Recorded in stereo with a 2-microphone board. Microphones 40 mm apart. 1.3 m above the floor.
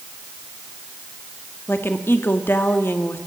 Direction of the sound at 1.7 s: 60° left (ahead or behind).